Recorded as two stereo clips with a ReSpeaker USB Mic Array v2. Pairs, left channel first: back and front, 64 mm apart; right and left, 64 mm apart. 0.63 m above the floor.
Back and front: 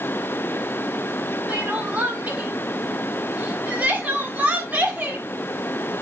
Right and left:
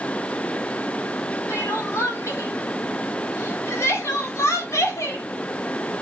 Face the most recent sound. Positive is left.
turn(degrees=-65)